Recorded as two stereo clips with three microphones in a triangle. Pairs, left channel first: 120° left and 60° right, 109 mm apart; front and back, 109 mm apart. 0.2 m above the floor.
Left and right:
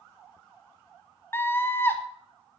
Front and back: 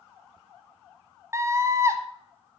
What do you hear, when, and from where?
1.3 s a scream: 165° left, 1.1 m